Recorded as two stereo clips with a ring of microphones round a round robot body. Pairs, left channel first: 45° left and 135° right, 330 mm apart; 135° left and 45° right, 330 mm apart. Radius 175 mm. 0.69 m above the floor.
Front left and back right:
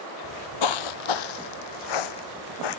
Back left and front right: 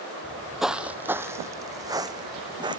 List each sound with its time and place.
0.2 s footsteps: 50° left; by 2.8 s 30° left